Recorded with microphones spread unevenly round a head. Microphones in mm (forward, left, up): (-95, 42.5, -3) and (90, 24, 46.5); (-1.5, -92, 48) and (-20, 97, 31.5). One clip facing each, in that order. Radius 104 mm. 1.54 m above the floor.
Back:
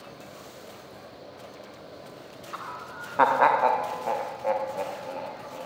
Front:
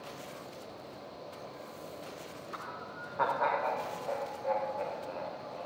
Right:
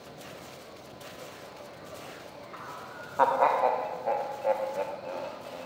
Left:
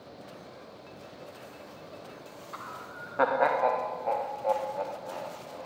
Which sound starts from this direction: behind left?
Laughter, at 2.5 s.